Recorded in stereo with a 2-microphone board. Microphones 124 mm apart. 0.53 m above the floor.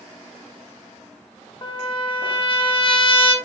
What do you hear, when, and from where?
1.6 s a trumpet: 45° left (ahead or behind), 0.8 m